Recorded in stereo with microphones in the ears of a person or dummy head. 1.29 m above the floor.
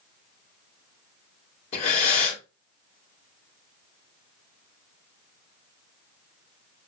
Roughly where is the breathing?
Left.